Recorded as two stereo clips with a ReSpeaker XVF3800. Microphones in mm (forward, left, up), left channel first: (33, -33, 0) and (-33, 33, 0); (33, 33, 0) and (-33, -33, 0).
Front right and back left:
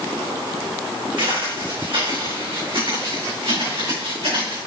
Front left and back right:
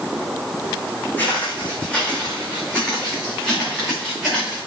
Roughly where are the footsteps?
Behind left.